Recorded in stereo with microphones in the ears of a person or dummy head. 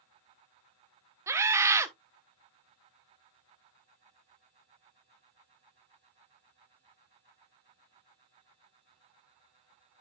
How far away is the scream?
About 1.0 m.